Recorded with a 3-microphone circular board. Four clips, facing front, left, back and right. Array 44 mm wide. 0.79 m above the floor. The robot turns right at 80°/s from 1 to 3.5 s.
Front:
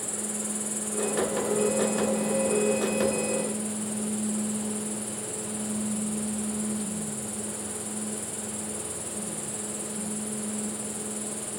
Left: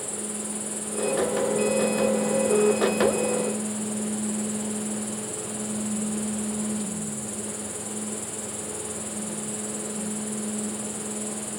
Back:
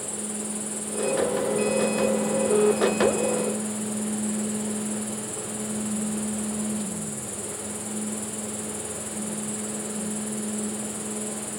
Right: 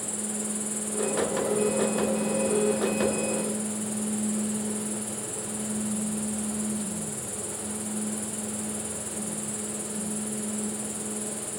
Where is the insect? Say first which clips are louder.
Even, back 2 dB; 25° right, 3 m; by 11.6 s 175° left, 3 m.